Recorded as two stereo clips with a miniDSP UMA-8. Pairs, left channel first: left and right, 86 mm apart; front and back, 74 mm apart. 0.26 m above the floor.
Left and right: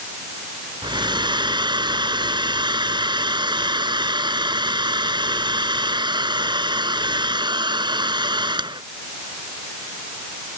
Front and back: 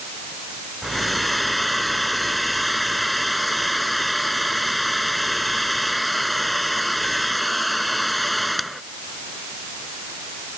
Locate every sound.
0.8 s a hair dryer: 90° right